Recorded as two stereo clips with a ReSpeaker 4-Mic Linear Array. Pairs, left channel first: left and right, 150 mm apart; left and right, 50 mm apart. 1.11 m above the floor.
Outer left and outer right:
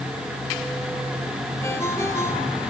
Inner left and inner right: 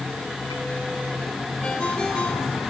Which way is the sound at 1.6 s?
20° left (ahead or behind).